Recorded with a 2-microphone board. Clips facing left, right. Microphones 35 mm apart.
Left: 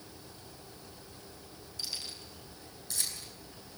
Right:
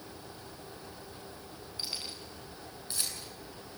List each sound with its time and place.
1.8 s keys jangling: 30° right (ahead or behind), 7.5 m